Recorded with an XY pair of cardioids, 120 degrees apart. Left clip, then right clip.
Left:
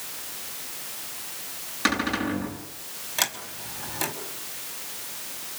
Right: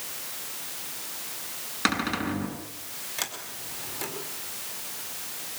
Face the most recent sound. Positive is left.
turn(degrees=30)